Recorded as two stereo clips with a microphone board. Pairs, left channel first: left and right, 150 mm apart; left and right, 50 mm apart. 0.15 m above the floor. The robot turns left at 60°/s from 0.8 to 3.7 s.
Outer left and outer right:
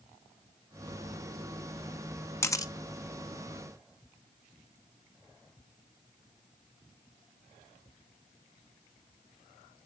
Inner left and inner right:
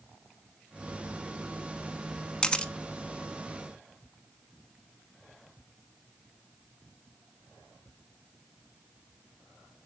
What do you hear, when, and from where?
2.4 s a camera shutter: 20° left (ahead or behind), 0.7 m; by 2.7 s 25° left (ahead or behind), 0.7 m